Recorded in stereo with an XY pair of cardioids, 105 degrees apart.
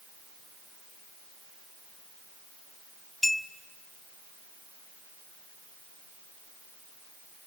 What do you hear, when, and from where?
3.2 s a clink: straight ahead, 1.6 m